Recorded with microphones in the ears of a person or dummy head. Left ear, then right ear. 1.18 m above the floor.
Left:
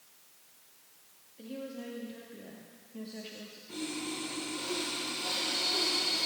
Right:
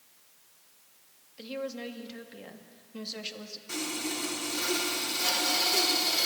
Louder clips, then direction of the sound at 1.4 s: Right 6 dB; 50° right (ahead or behind).